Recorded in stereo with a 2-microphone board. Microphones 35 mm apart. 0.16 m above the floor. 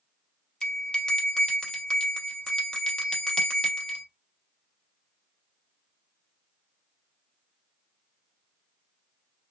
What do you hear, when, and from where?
0.6 s a bell: 25° left (ahead or behind), 0.7 m